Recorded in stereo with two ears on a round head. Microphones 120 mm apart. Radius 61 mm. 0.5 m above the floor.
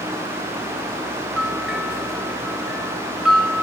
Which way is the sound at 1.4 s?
5° right (ahead or behind).